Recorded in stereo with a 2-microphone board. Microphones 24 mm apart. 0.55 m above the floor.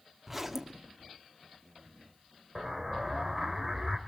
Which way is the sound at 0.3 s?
5° right (ahead or behind).